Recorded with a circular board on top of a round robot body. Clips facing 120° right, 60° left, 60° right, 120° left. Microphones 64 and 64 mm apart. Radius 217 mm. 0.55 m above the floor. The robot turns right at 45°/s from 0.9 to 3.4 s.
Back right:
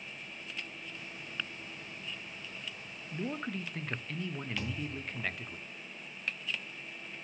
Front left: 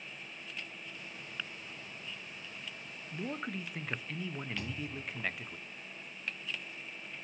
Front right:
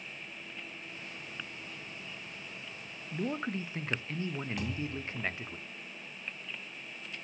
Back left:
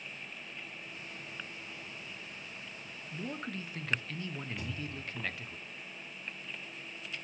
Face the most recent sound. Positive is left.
turn(degrees=-45)